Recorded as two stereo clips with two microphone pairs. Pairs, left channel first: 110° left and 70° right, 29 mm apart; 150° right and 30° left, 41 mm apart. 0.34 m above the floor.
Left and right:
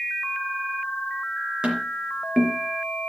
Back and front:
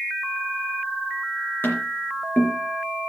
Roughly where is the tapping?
Behind right.